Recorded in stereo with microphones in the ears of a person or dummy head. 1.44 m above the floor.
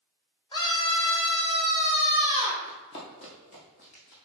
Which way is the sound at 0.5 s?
25° left (ahead or behind).